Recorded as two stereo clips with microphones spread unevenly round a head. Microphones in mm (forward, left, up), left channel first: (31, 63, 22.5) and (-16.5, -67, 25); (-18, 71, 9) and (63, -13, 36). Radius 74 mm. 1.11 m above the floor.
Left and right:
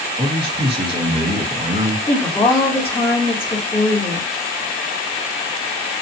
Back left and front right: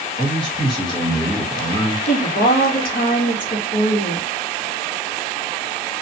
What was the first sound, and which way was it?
A man speaking, 170° right.